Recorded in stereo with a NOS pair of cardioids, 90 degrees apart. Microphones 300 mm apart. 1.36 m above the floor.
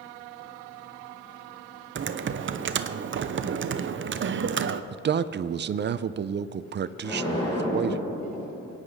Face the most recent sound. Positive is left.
turn(degrees=15)